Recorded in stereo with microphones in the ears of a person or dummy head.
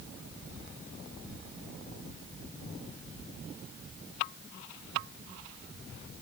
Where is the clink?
No clink in this recording.